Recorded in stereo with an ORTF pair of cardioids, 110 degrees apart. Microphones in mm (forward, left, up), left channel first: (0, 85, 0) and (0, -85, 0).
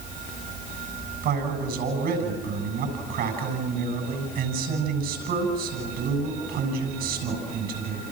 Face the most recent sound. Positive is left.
turn(degrees=-70)